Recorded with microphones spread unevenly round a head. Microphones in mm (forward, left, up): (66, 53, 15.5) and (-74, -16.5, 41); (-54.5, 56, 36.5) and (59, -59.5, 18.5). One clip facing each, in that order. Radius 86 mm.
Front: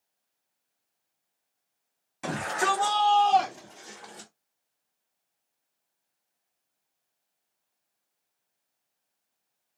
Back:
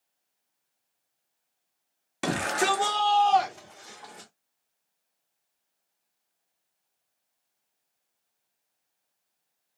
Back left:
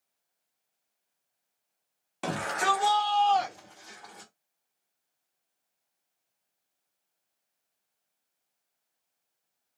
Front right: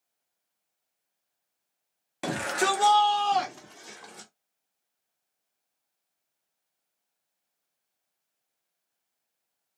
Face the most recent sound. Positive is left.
turn(degrees=-25)